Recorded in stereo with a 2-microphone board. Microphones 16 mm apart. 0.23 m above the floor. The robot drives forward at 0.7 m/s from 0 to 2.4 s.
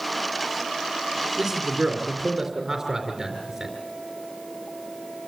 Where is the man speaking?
15° right (ahead or behind), 3 m; by 3.8 s 10° right (ahead or behind), 3.5 m.